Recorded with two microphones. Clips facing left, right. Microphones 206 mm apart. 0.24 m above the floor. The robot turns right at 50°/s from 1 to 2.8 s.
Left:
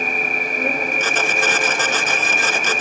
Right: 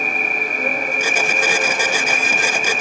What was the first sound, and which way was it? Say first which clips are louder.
An insect: left 1 dB; 160° left.